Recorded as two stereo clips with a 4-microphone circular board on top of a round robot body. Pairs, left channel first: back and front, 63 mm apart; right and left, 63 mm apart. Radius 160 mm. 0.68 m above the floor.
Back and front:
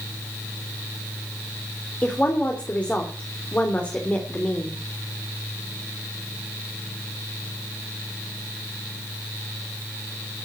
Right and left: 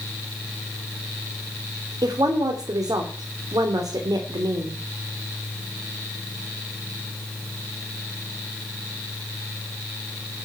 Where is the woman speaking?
110° left, 3 m.